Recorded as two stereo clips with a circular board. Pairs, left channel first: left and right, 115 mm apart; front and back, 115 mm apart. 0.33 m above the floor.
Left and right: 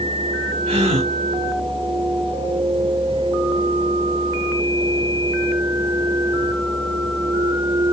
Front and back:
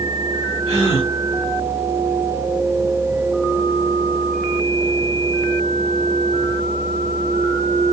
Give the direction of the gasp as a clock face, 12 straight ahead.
2 o'clock.